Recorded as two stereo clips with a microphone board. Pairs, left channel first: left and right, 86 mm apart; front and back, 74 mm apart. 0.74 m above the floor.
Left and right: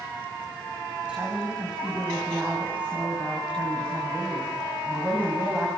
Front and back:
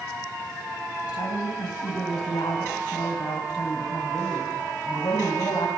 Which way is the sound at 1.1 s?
15° right.